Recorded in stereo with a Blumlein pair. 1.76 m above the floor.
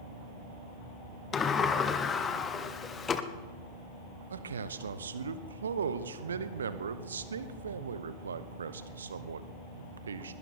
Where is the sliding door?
20° left, 0.9 m.